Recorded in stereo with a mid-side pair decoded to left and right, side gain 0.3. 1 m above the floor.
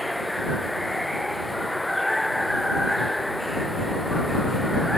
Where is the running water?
5° left.